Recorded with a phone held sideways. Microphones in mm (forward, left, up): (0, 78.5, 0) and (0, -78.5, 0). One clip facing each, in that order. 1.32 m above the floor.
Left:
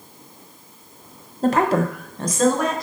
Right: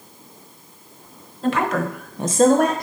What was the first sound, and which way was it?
A woman speaking, 45° left (ahead or behind).